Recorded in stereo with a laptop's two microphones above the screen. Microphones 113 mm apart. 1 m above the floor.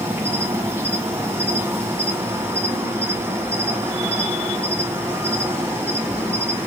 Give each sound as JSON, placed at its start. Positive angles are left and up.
{"t": 0.0, "sound": "an insect", "side_deg": -20, "distance_m": 0.7}